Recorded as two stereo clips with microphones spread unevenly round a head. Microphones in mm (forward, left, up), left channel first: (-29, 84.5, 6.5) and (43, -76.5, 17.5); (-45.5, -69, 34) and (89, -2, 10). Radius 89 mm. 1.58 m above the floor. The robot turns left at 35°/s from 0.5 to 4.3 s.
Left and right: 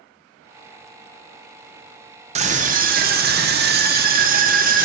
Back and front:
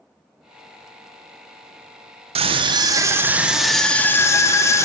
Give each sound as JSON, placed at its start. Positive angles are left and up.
{"t": 2.4, "sound": "a scream", "azimuth_deg": -25, "distance_m": 0.7}